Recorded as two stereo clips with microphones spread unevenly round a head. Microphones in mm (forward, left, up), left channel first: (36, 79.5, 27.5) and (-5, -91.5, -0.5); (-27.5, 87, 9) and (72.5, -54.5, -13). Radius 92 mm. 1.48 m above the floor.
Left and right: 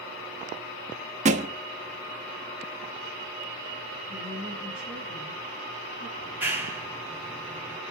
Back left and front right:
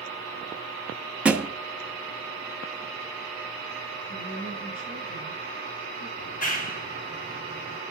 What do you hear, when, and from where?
1.2 s a thud: 145° right, 1.0 m
4.1 s a woman speaking: 145° left, 7 m
6.2 s a clap: 175° left, 2 m